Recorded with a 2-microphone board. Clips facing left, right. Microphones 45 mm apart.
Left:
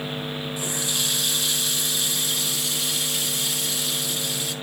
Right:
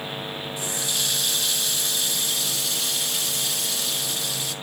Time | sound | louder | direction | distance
0.6 | a running tap | even | centre (ahead or behind) | 1.8 m